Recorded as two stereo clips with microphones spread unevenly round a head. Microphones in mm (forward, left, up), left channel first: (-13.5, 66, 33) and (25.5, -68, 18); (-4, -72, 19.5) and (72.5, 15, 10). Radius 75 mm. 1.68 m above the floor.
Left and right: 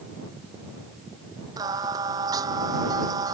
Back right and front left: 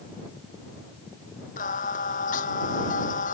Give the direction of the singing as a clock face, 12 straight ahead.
5 o'clock.